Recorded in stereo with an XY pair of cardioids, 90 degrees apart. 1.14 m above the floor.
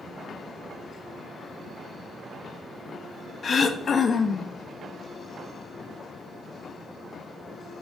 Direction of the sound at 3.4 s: 45° left.